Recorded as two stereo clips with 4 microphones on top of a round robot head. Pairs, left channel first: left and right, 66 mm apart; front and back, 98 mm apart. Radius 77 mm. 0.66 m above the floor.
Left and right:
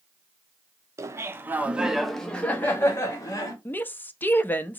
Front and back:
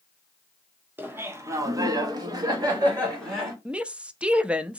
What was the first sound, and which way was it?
Laughter, 115° right.